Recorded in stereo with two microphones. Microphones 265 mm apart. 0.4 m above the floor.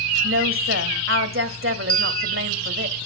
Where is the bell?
20° left (ahead or behind), 1.0 m.